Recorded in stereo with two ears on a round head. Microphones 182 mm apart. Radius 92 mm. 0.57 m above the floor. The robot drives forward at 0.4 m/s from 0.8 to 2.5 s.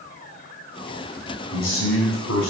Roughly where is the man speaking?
Left.